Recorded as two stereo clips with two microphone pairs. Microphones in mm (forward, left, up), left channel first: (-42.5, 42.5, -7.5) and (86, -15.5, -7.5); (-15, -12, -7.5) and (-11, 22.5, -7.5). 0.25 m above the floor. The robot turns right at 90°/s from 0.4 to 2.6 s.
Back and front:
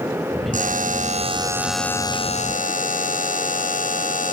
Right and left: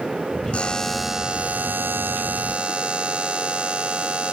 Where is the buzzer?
45° right, 0.8 m; by 4.3 s 140° left, 0.8 m.